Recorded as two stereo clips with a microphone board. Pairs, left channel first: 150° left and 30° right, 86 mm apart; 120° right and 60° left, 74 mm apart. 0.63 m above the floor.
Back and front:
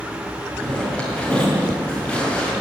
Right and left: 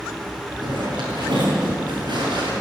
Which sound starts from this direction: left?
A zipper, at 0.6 s.